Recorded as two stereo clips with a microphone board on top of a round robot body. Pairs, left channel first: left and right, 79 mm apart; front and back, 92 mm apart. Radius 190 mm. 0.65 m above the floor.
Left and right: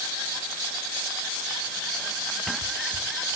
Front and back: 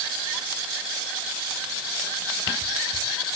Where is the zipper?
No zipper in this recording.